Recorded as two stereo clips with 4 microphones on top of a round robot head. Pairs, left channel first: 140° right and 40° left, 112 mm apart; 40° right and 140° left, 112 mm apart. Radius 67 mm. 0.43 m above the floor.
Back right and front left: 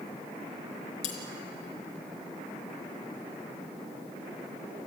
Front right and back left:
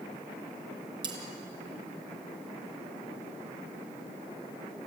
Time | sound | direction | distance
1.0 | cutlery clinking | 170° right | 4 m